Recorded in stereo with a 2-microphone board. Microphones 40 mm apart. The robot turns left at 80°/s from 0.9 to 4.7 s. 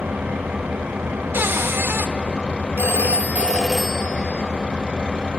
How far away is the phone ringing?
About 0.9 m.